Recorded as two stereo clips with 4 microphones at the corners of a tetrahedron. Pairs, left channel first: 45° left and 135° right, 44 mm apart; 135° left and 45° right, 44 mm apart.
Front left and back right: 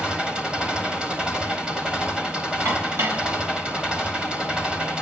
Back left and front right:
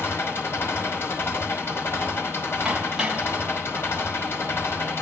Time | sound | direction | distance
0.0 | an engine running | 155° left | 4 m
2.6 | dishes clattering | 120° right | 2.5 m